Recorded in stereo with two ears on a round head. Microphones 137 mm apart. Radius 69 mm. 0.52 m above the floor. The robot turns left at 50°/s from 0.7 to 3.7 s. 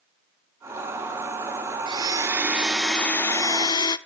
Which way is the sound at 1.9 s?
135° right.